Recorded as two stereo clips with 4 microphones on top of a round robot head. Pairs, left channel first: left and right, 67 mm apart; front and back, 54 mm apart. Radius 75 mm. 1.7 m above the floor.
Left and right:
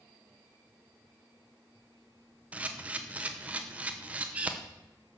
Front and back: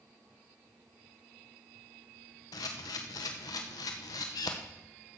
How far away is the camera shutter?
About 0.9 m.